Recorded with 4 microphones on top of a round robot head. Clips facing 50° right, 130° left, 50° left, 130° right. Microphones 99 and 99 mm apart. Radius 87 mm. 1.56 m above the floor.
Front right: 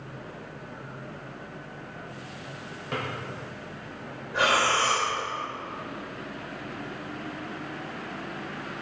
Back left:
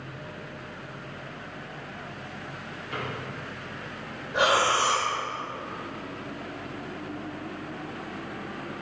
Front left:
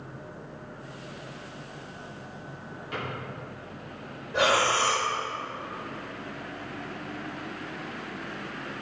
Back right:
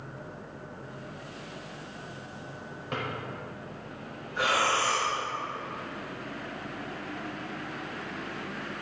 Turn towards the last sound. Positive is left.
turn(degrees=60)